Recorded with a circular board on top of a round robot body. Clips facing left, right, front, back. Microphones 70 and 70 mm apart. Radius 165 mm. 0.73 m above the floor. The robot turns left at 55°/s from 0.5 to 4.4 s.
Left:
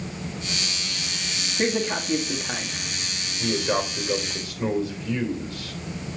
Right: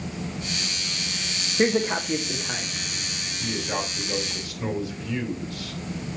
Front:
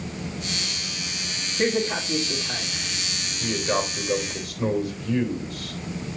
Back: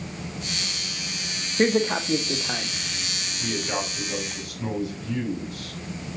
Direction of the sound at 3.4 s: 85° left.